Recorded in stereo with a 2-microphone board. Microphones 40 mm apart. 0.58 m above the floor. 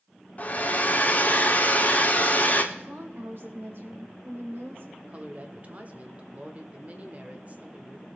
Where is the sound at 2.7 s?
60° right (ahead or behind), 2.5 m.